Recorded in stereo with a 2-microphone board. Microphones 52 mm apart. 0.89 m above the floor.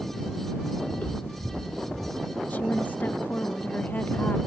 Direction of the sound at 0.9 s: 30° left (ahead or behind).